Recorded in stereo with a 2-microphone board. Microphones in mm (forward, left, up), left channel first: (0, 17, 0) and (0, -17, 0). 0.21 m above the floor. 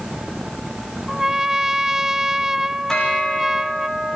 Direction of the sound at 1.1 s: 15° right (ahead or behind).